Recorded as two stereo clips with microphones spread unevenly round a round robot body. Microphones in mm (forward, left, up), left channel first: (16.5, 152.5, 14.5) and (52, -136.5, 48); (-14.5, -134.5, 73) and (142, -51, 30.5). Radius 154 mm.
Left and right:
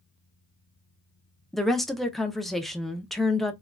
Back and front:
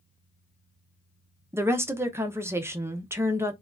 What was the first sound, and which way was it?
A woman speaking, 20° left.